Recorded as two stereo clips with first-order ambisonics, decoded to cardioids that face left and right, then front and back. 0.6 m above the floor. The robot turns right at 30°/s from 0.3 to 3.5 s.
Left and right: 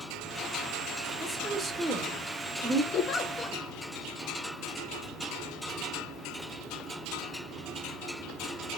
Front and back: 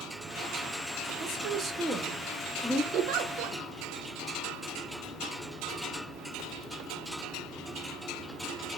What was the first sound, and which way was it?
A woman speaking, 155° right.